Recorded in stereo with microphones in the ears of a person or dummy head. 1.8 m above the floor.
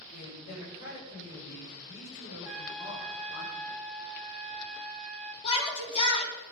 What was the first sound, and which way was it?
A man speaking, 55° left (ahead or behind).